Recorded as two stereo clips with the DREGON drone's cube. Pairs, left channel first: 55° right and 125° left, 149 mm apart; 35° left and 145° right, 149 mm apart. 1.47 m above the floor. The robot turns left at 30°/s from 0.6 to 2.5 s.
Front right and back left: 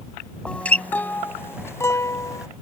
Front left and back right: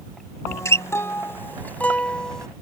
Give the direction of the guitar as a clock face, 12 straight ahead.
12 o'clock.